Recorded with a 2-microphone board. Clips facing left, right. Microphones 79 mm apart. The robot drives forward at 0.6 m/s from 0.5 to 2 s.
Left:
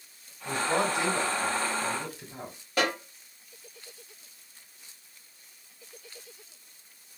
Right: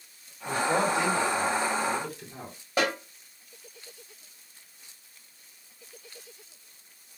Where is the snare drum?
20° right (ahead or behind), 1.8 m.